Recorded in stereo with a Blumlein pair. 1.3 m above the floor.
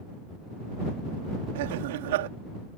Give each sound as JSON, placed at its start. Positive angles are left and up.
{"t": 1.6, "sound": "laughter", "azimuth_deg": -55}